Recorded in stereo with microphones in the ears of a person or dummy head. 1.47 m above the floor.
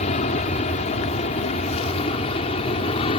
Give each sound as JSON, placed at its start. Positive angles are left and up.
{"t": 0.0, "sound": "an aircraft", "side_deg": 35}